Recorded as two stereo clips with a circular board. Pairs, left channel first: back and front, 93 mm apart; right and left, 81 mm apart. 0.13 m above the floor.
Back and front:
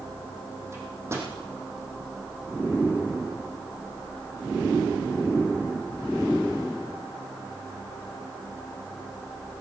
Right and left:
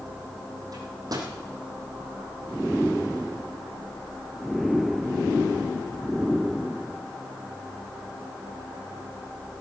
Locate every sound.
0.7 s a microwave: 60° left, 4.5 m